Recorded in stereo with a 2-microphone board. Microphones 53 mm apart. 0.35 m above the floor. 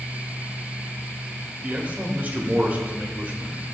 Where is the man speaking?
30° right (ahead or behind), 0.9 m.